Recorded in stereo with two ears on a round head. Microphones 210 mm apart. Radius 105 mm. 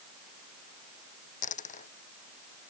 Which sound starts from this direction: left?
A dropped coin, at 1.4 s.